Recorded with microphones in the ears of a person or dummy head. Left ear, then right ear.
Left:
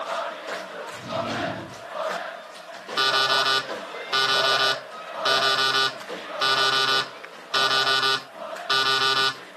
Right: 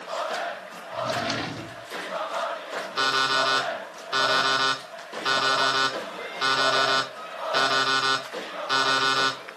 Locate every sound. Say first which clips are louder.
0.9 s a drawer: right 3 dB; 30° right (ahead or behind), 1.7 m
3.0 s an alarm clock: left 2 dB; 10° left (ahead or behind), 2.5 m